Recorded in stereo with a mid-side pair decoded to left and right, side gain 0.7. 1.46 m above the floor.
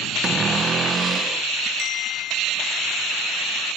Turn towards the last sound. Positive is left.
turn(degrees=50)